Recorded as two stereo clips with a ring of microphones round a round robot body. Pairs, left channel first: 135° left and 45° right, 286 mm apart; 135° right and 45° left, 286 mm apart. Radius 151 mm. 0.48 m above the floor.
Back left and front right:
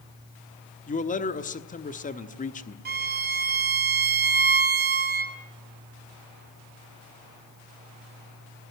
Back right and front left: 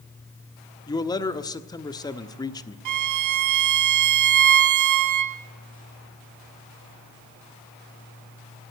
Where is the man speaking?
160° left, 1.3 m.